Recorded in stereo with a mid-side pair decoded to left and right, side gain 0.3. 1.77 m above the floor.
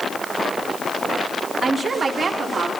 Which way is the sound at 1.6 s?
45° right.